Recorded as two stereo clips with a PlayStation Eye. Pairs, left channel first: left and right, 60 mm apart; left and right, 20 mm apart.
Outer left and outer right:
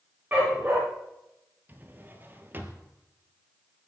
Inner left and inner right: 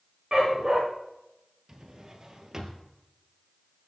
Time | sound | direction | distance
0.3 | a dog barking | 30° right (ahead or behind) | 8.5 m
1.7 | a drawer | 30° right (ahead or behind) | 2.0 m